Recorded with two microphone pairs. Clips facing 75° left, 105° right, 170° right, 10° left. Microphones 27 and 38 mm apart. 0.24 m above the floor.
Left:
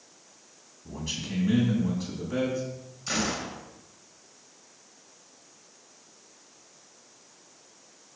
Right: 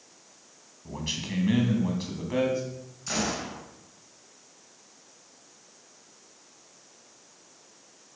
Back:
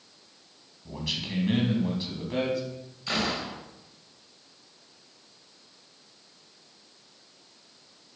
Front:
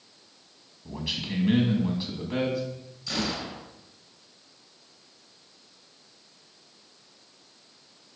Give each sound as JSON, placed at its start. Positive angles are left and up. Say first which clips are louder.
{"t": 0.8, "sound": "a man speaking", "louder": "right 1 dB, front 1 dB", "azimuth_deg": -65, "distance_m": 2.0}
{"t": 3.1, "sound": "a gunshot", "louder": "left 1 dB, back 2 dB", "azimuth_deg": 150, "distance_m": 2.5}